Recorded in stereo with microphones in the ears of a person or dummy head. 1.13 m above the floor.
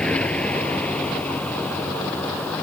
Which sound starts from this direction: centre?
A vehicle, at 0.0 s.